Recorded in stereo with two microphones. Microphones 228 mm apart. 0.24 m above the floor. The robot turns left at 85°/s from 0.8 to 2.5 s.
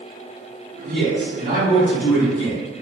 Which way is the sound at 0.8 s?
90° right.